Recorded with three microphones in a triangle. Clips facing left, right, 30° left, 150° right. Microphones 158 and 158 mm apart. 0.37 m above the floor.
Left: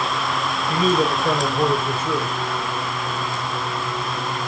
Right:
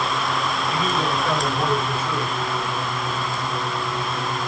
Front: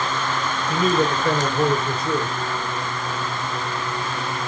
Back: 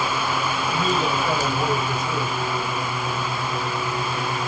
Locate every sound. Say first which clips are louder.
0.7 s a man speaking: left 7 dB, front 5 dB; 50° left, 5.5 m